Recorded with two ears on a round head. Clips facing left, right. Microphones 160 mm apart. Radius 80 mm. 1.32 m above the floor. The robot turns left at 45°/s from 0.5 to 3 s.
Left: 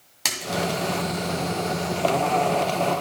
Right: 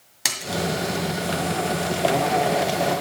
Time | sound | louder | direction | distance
0.2 | a splash | even | 5° right (ahead or behind) | 1.7 m